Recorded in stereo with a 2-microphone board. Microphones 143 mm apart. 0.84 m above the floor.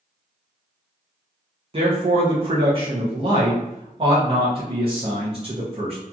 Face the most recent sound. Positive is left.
turn(degrees=-40)  # may be behind; listen again after turning